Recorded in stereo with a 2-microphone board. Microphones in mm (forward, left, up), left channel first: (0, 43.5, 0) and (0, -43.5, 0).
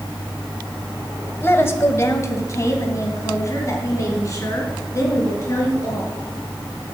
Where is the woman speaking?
25° left (ahead or behind), 1.5 m; by 6.2 s 35° left (ahead or behind), 5 m.